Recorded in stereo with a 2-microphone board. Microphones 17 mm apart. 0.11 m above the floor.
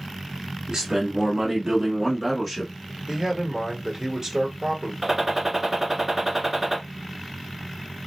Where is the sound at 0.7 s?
40° right (ahead or behind), 1.6 m; by 2.7 s 15° left (ahead or behind), 1.2 m.